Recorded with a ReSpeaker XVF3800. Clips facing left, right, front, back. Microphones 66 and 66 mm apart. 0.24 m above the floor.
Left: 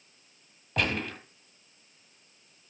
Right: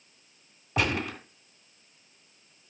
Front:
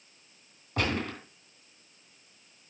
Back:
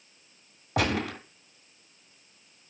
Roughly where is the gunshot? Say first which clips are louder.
Right 2 dB, back 3 dB; behind.